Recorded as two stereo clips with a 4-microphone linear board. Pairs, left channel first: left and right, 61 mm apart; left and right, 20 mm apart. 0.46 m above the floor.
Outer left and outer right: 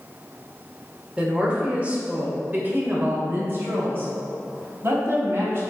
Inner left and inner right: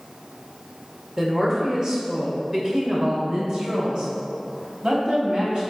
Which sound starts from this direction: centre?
A woman speaking, at 1.2 s.